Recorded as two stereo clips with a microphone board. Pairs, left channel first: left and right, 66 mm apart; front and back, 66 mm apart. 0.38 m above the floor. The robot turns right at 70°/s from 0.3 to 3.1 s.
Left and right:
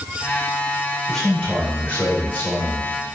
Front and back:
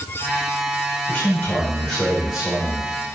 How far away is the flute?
No flute in this recording.